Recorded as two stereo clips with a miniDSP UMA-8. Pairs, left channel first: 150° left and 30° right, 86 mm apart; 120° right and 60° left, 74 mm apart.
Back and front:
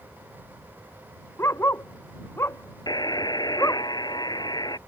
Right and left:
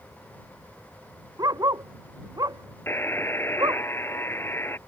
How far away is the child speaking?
I don't hear a child speaking.